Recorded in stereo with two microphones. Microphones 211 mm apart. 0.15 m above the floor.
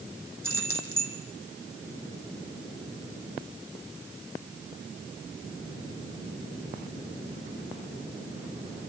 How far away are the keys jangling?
About 4 m.